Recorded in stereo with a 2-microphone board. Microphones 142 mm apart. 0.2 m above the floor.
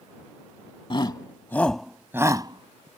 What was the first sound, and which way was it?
A shout, 40° left (ahead or behind).